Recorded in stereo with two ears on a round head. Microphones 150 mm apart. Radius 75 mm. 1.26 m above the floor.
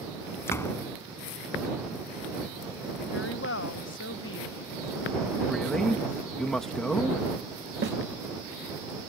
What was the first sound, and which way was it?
A door slam, 15° left (ahead or behind).